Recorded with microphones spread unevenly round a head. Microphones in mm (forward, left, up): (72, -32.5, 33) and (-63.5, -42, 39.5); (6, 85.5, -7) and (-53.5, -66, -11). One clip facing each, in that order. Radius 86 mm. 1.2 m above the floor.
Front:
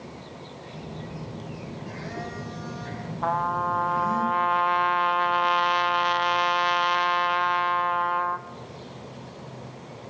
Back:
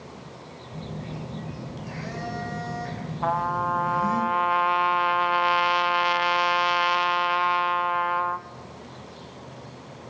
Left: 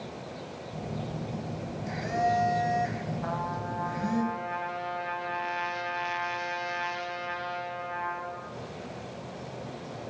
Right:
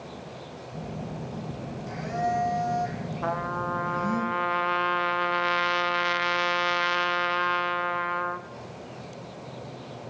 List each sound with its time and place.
0.7 s a phone buzzing: 140° left, 3.5 m
3.2 s a trumpet: 90° right, 0.5 m